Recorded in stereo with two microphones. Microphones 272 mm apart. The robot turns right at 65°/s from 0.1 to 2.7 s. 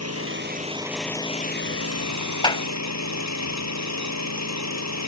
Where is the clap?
15° left (ahead or behind); by 2.6 s 20° left (ahead or behind).